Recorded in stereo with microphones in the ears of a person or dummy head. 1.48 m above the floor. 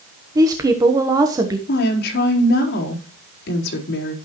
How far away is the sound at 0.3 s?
About 1.1 m.